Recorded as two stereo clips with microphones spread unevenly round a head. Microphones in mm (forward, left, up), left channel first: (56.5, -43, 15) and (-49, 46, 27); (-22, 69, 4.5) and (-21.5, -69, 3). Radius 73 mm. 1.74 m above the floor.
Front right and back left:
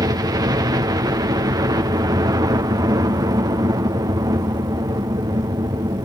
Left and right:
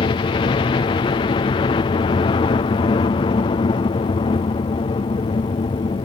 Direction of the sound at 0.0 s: 95° left.